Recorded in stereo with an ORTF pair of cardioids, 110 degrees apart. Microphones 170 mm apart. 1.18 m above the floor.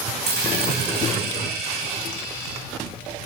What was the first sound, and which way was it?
A dropped coin, 70° right.